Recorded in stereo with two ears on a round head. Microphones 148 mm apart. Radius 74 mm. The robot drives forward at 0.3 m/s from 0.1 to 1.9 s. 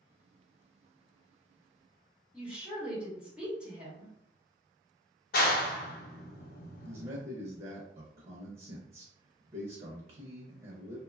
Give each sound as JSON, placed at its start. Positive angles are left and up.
{"t": 2.3, "sound": "a woman speaking", "side_deg": -5, "distance_m": 1.5}
{"t": 5.3, "sound": "a clap", "side_deg": 60, "distance_m": 0.7}
{"t": 6.8, "sound": "a man speaking", "side_deg": -35, "distance_m": 0.6}